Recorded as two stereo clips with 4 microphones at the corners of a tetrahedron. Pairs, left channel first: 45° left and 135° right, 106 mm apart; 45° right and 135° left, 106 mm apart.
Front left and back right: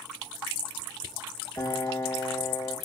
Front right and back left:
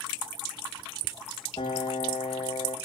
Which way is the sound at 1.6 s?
10° right.